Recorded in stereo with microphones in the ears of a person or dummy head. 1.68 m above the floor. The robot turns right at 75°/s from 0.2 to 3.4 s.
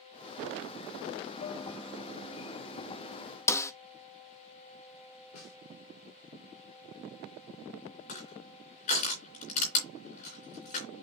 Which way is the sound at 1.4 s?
150° left.